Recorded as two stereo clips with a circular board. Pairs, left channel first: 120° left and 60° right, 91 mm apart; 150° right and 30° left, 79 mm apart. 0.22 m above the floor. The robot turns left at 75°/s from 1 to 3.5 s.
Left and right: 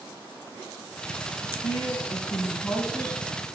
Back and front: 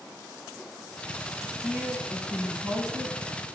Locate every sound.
1.6 s a woman speaking: 120° left, 2 m; by 3.5 s 20° right, 2 m